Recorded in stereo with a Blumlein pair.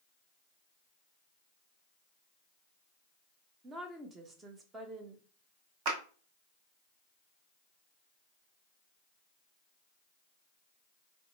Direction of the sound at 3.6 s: 20° right.